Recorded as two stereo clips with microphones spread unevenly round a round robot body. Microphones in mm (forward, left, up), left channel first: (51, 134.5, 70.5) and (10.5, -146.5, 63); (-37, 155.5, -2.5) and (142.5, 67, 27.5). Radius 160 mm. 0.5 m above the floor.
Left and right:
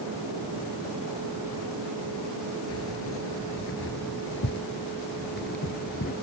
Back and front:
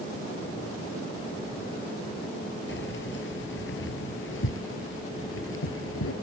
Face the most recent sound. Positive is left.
turn(degrees=145)